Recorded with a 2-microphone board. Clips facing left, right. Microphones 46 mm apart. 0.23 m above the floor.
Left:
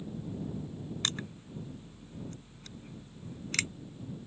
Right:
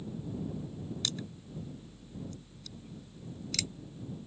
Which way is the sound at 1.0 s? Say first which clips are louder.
Left 2 dB; 40° left (ahead or behind).